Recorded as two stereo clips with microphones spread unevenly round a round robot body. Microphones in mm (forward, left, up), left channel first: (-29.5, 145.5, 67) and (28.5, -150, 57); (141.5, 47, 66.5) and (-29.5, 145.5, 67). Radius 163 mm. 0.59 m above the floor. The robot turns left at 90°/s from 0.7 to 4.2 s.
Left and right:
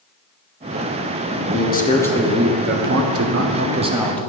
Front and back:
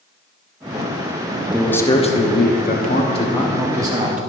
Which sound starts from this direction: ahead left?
A man speaking, at 1.5 s.